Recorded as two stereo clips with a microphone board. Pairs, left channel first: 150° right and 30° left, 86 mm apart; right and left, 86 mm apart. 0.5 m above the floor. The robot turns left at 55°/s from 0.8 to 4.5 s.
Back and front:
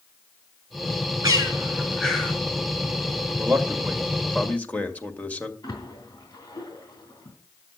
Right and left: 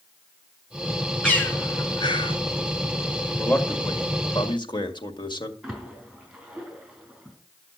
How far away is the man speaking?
About 1.8 m.